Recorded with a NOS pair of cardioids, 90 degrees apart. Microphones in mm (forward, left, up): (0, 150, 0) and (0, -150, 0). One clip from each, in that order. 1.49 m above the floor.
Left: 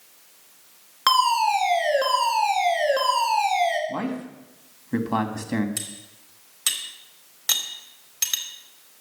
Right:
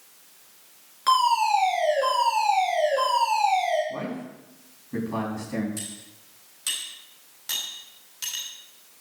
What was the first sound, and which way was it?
A fire alarm, 70° left.